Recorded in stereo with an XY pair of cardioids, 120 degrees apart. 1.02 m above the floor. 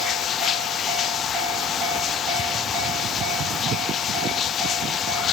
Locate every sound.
0.0 s running water: 55° left